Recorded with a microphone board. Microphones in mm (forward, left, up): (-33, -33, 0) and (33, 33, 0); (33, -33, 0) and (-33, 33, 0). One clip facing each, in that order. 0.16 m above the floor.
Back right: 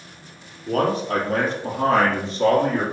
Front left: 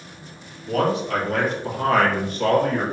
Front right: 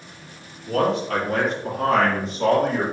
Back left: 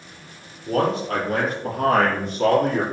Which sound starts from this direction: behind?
A man speaking, at 0.7 s.